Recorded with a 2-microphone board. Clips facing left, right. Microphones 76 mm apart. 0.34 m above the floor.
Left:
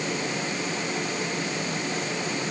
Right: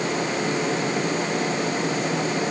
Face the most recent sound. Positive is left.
No sound to turn to.